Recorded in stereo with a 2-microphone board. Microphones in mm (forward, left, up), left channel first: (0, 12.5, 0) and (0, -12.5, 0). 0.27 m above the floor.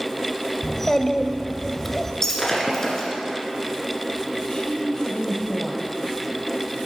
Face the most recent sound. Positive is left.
turn(degrees=35)  # may be behind; listen again after turning